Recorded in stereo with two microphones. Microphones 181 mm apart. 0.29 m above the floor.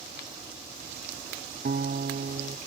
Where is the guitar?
60° right (ahead or behind).